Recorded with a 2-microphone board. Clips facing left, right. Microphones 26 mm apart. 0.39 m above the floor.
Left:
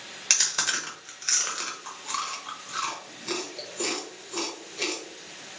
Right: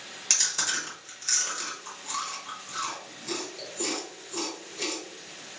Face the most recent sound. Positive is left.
turn(degrees=30)  # may be behind; listen again after turning